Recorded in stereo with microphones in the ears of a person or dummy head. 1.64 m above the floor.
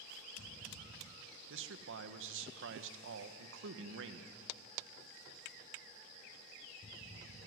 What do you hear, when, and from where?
1.5 s a man speaking: 75° right (ahead or behind), 1.7 m